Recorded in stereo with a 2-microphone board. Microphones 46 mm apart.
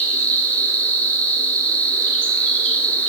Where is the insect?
25° left (ahead or behind), 5.5 m.